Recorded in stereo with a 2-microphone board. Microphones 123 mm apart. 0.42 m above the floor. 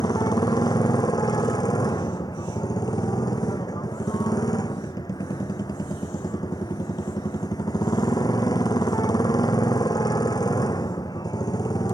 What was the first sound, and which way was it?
A motorcycle, 30° left (ahead or behind).